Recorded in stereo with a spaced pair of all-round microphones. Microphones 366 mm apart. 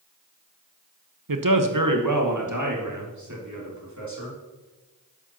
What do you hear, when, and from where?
1.3 s a man speaking: 65° right (ahead or behind), 0.8 m; by 4.4 s 50° right (ahead or behind), 3.5 m